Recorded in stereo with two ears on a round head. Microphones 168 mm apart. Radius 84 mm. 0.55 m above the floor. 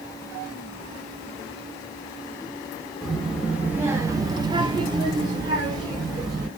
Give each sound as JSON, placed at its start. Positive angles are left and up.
{"t": 3.0, "sound": "a child speaking", "side_deg": 0, "distance_m": 0.9}